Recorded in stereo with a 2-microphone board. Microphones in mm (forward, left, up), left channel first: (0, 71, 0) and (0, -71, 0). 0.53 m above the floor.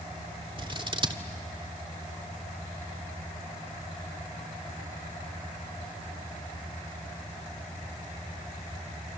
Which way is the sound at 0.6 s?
35° right (ahead or behind).